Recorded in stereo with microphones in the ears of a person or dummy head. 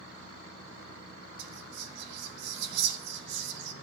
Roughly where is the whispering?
Right.